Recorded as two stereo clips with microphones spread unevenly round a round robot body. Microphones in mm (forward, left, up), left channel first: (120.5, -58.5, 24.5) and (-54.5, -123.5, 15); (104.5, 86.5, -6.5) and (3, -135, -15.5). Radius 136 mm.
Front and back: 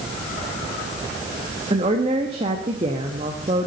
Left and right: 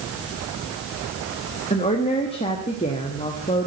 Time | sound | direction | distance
1.7 | a woman speaking | 135° left | 0.9 m